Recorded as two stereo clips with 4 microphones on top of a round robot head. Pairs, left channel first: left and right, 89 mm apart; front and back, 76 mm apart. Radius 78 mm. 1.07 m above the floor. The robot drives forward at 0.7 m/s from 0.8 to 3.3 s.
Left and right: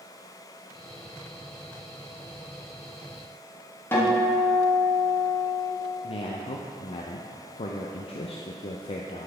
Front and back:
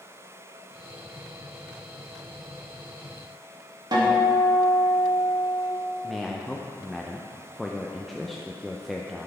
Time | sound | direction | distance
3.9 | a guitar | 150° left | 2.5 m
6.0 | a man speaking | 90° left | 0.5 m